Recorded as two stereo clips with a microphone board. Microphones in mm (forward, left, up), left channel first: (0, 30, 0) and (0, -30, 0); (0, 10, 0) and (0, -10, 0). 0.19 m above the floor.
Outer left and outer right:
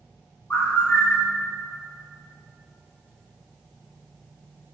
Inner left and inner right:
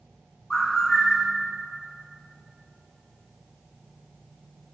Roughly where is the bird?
Left.